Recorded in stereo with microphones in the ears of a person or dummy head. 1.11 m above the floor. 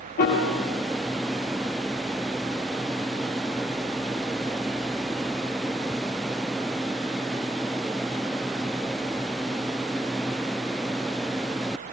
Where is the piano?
45° left (ahead or behind), 1.1 m.